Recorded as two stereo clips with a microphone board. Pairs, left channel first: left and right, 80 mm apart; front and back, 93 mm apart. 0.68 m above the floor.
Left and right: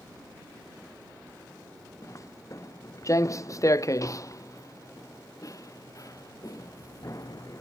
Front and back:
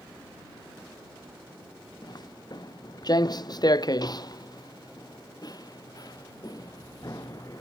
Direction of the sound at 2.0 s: 40° left.